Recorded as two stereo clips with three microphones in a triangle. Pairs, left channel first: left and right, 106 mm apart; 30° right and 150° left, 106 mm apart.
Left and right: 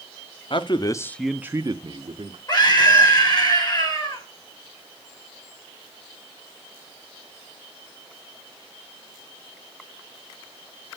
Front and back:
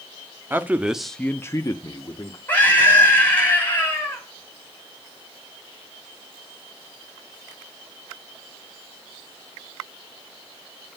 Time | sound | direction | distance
0.5 | a man speaking | 85° left | 0.9 m
2.5 | a scream | 40° left | 5 m